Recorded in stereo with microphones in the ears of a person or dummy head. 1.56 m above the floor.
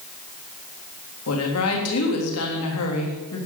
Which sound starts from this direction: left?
A woman speaking, at 1.3 s.